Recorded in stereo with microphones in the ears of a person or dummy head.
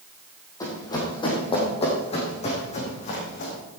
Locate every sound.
0.6 s running footsteps: 20° left (ahead or behind), 3.5 m; by 3.5 s 45° left (ahead or behind), 4 m